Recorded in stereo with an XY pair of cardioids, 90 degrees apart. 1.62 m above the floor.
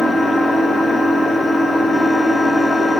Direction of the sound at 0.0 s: 50° left.